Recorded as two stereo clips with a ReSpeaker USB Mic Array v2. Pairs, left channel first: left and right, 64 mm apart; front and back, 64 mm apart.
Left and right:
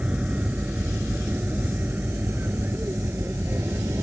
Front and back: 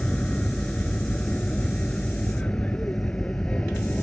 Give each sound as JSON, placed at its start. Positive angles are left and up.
{"t": 0.0, "sound": "an aircraft", "azimuth_deg": -50}